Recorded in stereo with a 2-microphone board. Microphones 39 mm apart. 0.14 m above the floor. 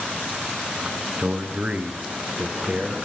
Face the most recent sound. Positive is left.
turn(degrees=-30)  # may be behind; listen again after turning